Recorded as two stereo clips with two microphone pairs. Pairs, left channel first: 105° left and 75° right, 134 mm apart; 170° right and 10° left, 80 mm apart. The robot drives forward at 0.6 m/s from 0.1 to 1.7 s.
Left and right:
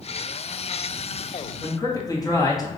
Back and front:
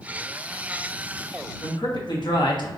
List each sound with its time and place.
1.6 s a man speaking: 170° left, 1.2 m